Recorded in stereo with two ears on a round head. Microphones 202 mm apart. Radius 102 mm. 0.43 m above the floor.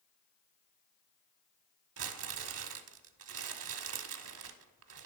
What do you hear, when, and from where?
2.0 s crumpling: 70° right (ahead or behind), 0.6 m